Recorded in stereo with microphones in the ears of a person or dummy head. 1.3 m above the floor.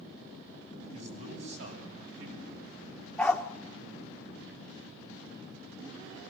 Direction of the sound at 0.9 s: 75° right (ahead or behind).